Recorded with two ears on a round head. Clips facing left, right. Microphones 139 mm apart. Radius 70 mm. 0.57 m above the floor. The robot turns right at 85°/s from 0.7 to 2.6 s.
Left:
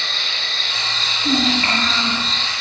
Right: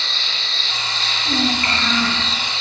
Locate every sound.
0.0 s an insect: 45° left, 3.5 m; by 2.6 s 155° right, 3.5 m
1.2 s a child speaking: 120° left, 7 m; by 2.2 s 155° right, 7 m